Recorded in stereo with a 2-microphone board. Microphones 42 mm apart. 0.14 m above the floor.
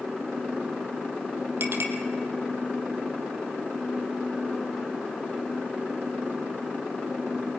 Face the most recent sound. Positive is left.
turn(degrees=-60)  # may be behind; listen again after turning